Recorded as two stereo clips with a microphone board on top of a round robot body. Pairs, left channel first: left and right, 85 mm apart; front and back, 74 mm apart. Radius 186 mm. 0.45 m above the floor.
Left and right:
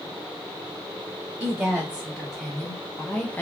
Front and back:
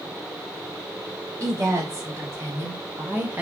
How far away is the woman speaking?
About 1.6 m.